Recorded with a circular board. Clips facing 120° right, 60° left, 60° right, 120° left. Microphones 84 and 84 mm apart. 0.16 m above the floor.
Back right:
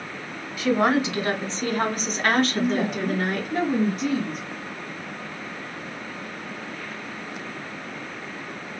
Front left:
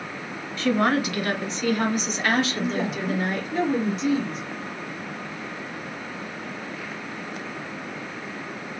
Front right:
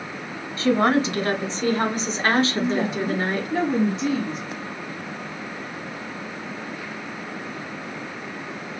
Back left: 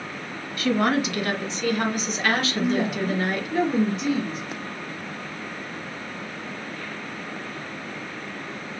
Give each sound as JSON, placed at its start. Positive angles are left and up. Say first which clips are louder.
{"t": 0.6, "sound": "a woman speaking", "louder": "back right 1 dB, front right 3 dB", "azimuth_deg": -50, "distance_m": 1.1}
{"t": 2.6, "sound": "a woman speaking", "louder": "back right 3 dB, even", "azimuth_deg": -120, "distance_m": 2.0}